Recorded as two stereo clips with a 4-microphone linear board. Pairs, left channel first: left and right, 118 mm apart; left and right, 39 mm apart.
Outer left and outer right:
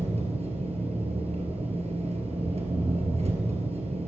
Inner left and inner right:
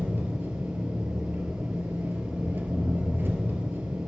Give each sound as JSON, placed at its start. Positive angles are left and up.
{"t": 0.0, "sound": "an engine running", "side_deg": -70, "distance_m": 2.5}